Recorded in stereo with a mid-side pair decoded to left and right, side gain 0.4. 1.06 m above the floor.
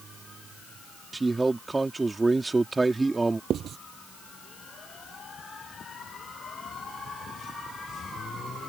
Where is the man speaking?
25° right.